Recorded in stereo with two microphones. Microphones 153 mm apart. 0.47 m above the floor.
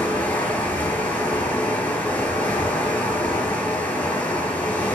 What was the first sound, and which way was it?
Running water, 10° left (ahead or behind).